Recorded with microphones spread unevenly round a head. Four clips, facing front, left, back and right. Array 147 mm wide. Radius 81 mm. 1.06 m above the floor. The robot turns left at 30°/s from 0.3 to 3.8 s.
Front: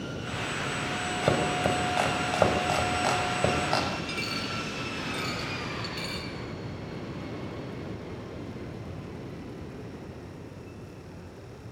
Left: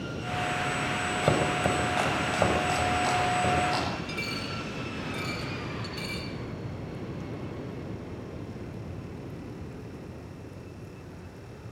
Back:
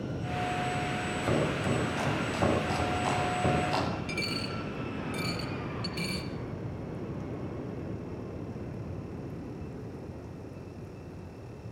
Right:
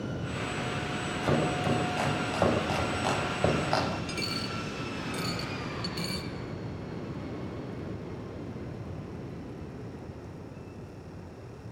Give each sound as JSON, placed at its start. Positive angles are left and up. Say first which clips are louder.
{"t": 1.2, "sound": "chopping", "louder": "left 1 dB, front 4 dB", "azimuth_deg": 40, "distance_m": 7.5}
{"t": 4.1, "sound": "a dropped coin", "louder": "even, front 1 dB", "azimuth_deg": -130, "distance_m": 1.7}